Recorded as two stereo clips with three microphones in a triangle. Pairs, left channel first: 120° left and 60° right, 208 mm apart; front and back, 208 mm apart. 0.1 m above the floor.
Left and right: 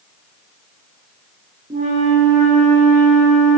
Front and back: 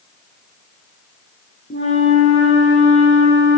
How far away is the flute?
About 5 m.